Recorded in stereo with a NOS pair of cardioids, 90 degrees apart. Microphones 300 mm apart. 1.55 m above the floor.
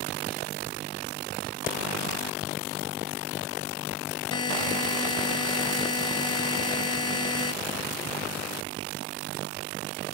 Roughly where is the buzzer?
Ahead.